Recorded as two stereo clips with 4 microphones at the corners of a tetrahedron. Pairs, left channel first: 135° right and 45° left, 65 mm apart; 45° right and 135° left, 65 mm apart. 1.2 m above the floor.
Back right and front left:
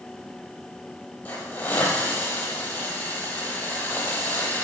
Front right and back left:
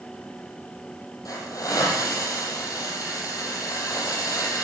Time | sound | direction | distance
1.2 | a hiss | 80° right | 6.5 m